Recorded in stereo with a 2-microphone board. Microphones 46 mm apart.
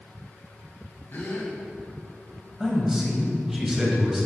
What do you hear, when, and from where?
1.1 s a gasp: 45° left (ahead or behind), 1.2 m
2.6 s a man speaking: 10° right (ahead or behind), 1.2 m